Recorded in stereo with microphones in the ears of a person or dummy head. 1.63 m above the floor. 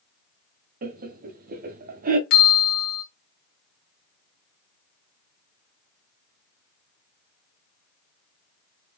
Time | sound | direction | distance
0.8 | laughter | 50° right (ahead or behind) | 0.8 m
2.3 | a bell | 60° left (ahead or behind) | 1.9 m